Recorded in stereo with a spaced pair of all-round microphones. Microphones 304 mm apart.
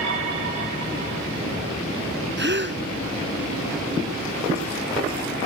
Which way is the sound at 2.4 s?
35° right (ahead or behind).